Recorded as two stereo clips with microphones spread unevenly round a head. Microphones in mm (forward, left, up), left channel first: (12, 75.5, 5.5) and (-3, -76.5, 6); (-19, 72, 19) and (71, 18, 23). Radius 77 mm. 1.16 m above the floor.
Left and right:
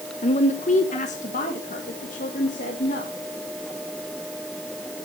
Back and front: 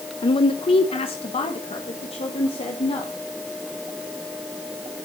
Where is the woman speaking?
125° left, 0.9 m.